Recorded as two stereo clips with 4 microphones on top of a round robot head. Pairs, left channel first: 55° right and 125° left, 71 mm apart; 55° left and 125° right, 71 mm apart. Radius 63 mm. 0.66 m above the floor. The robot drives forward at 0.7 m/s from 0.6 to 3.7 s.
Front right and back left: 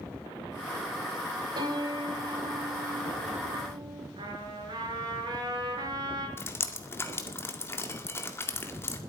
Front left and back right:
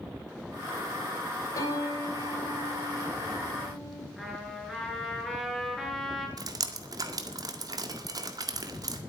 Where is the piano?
100° left, 3 m; by 4.1 s 120° left, 4 m.